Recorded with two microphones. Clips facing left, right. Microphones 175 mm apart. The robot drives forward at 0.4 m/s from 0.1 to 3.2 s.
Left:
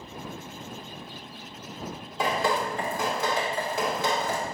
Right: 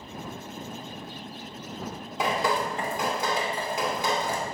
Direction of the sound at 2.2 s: 20° right (ahead or behind).